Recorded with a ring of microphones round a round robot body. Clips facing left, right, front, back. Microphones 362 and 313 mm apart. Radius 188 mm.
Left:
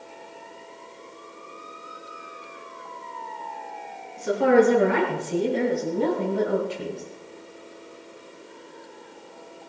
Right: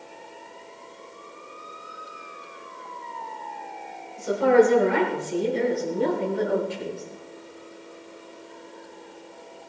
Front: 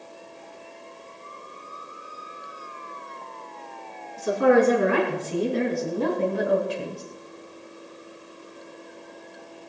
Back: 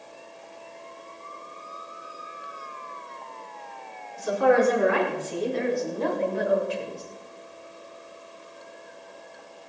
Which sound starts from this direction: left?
A woman speaking, at 4.2 s.